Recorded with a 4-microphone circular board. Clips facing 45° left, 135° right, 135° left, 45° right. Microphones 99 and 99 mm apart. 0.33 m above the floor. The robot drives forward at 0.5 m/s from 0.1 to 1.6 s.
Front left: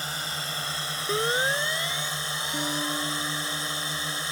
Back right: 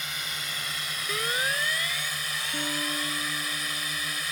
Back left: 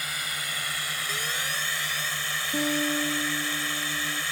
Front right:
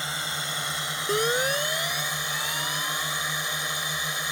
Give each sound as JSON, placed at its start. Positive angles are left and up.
{"t": 0.0, "sound": "a drone", "azimuth_deg": 10}
{"t": 1.1, "sound": "a siren", "azimuth_deg": -15}
{"t": 2.5, "sound": "a guitar", "azimuth_deg": 130}